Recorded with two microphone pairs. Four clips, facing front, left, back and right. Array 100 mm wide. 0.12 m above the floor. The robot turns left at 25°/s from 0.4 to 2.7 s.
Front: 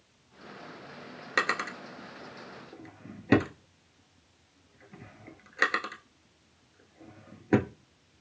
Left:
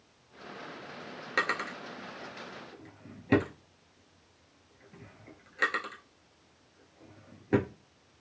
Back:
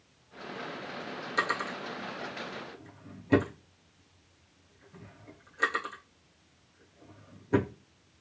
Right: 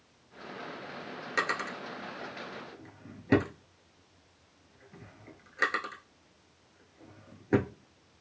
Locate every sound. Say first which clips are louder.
1.4 s a drawer: even, front 1 dB; 20° left, 0.8 m; by 7.7 s 15° right, 0.8 m